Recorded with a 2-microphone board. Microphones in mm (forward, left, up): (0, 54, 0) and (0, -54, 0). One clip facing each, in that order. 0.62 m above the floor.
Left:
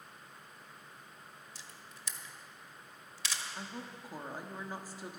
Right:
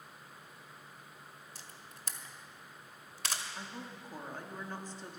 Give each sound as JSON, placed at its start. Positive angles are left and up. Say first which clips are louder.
{"t": 1.6, "sound": "a camera shutter", "louder": "even", "side_deg": -50, "distance_m": 1.1}
{"t": 3.5, "sound": "a woman speaking", "louder": "left 1 dB", "side_deg": 10, "distance_m": 1.1}